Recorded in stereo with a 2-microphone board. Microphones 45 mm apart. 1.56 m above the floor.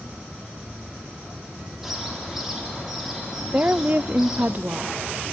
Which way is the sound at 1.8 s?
5° right (ahead or behind).